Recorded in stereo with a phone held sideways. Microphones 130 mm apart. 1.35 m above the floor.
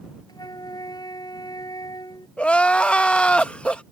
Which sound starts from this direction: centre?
Crying, at 2.4 s.